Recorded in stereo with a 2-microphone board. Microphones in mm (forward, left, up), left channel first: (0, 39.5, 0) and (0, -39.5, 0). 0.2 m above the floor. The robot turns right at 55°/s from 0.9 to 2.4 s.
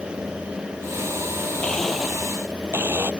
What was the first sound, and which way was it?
A blender, 165° left.